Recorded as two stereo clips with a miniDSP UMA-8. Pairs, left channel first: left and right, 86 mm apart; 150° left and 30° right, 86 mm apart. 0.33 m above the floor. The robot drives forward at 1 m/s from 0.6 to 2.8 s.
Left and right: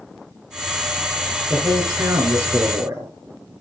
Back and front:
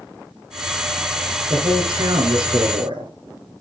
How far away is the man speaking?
About 5.5 m.